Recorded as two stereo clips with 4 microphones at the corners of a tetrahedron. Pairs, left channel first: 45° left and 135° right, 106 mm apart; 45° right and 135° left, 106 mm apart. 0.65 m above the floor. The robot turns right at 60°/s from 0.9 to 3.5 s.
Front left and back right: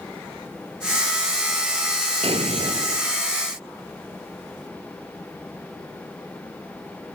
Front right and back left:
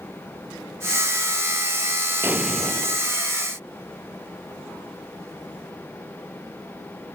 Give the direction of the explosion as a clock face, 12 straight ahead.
5 o'clock.